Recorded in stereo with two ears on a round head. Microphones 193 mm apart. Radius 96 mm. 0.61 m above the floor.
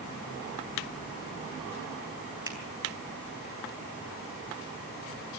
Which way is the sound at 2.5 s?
15° right (ahead or behind).